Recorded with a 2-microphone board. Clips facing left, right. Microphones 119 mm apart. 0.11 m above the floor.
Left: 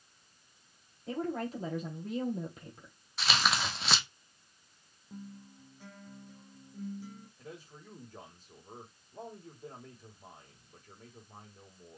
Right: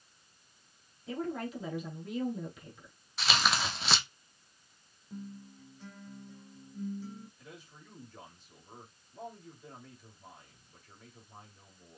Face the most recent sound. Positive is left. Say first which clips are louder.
# left 4 dB
turn(degrees=45)  # may be behind; listen again after turning